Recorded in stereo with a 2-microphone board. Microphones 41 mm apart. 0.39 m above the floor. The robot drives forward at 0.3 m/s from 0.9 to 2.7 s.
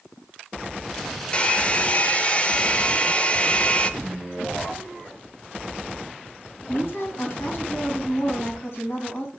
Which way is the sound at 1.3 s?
25° left (ahead or behind).